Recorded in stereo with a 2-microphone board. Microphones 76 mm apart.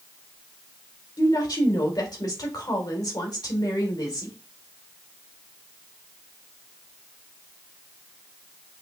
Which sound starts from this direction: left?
A woman speaking, at 1.2 s.